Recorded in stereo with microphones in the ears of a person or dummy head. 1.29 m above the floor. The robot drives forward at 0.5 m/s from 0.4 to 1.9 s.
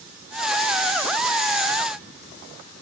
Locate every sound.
Only background noise.